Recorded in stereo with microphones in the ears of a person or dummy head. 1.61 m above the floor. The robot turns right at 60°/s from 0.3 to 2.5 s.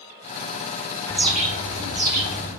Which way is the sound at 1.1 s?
165° left.